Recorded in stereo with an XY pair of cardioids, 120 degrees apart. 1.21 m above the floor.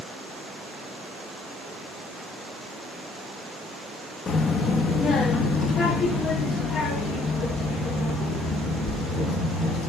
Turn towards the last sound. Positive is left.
turn(degrees=70)